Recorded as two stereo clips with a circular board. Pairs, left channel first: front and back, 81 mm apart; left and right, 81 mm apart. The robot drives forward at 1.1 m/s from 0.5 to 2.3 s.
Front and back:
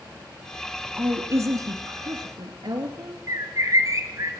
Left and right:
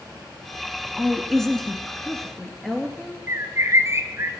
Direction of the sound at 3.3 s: 140° right.